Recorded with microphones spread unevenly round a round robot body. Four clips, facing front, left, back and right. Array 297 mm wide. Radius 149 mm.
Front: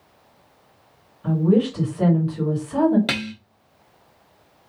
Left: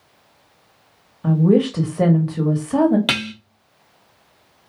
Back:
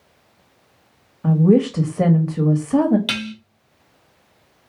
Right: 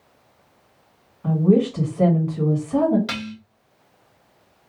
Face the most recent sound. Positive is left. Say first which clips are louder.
# left 5 dB, even
turn(degrees=65)